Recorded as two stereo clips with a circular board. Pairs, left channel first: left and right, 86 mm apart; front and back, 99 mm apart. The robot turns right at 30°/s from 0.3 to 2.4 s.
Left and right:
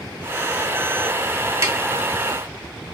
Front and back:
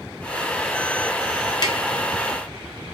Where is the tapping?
40° right, 0.6 m; by 1.8 s 35° right, 0.6 m.